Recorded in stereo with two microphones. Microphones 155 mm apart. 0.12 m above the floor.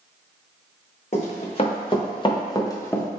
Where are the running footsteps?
45° left (ahead or behind), 1.7 m; by 3.0 s 10° left (ahead or behind), 0.8 m.